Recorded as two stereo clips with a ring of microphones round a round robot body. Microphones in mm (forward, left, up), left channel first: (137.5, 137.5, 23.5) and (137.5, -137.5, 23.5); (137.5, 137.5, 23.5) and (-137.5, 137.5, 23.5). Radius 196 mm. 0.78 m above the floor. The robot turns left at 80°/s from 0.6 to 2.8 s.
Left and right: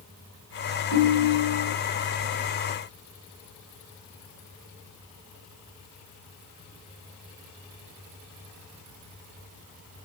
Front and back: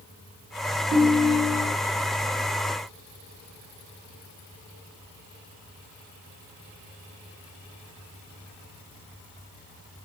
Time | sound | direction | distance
0.9 | a ringtone | 115° left | 2.5 m